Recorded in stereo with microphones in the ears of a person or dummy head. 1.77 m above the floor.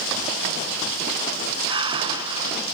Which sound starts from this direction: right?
Breathing, at 1.7 s.